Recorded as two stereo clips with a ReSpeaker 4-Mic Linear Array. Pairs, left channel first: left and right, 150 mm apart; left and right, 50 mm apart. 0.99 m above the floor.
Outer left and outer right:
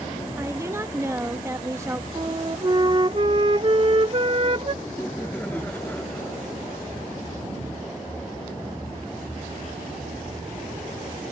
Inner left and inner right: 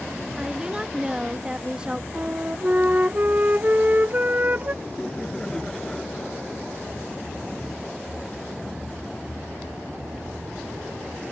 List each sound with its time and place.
0.4 s a woman speaking: 20° right (ahead or behind)
2.1 s a flute: 40° right (ahead or behind)
4.8 s laughter: 10° left (ahead or behind)